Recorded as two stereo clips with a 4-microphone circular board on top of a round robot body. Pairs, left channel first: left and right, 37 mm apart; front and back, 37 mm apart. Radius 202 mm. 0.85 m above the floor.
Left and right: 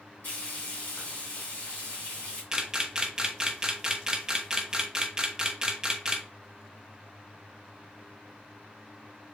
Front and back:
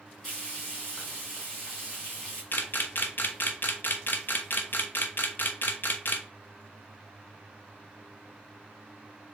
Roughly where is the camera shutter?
Ahead.